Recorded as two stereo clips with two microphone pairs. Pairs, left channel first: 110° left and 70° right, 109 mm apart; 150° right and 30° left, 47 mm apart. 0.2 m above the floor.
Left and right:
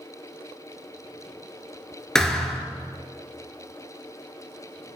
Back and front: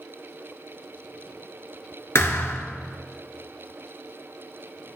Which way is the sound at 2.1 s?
165° right.